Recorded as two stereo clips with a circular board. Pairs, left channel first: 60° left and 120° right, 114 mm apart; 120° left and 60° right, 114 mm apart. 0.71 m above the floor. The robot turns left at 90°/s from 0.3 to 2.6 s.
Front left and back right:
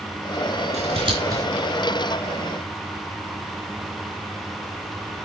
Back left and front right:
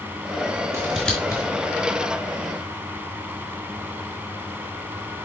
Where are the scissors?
125° right, 4.5 m; by 1.4 s 175° left, 4.5 m.